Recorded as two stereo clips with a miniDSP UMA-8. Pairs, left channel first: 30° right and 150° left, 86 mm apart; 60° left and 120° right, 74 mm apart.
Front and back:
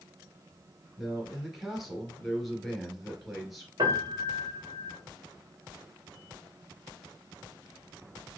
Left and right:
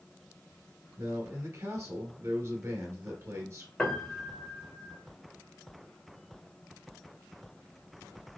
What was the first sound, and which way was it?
A man speaking, 120° right.